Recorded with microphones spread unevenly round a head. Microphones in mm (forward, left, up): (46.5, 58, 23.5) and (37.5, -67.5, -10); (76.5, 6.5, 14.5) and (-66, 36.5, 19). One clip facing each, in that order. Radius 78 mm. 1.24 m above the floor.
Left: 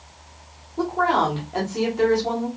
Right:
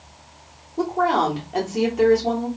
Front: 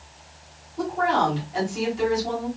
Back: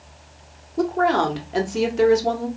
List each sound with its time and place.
0.8 s a woman speaking: 170° right, 1.2 m